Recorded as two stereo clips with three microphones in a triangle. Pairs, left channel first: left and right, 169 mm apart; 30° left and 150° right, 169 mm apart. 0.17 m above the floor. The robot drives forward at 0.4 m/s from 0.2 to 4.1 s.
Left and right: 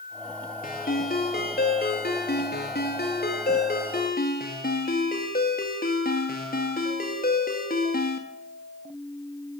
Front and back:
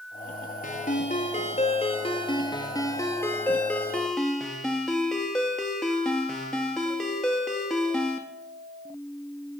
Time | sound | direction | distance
0.6 | a ringtone | 60° left | 1.6 m